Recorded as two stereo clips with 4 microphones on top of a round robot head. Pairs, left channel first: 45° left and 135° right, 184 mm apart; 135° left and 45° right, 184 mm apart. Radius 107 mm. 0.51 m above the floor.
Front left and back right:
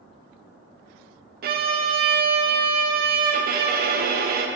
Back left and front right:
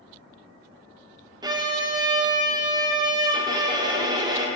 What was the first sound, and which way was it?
A violin, 110° right.